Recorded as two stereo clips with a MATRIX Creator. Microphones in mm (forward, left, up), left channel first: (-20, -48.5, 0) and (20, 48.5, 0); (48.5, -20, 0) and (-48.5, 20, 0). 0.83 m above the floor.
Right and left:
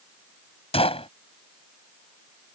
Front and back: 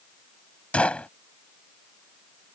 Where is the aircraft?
I don't hear an aircraft.